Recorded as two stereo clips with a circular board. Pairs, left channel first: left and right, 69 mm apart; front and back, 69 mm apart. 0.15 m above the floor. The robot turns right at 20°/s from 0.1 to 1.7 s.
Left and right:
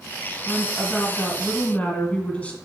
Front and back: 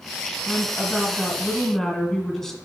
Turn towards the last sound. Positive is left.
turn(degrees=70)